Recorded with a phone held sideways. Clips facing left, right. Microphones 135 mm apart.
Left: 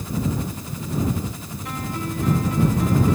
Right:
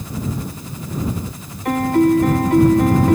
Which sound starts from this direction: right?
A piano, at 1.6 s.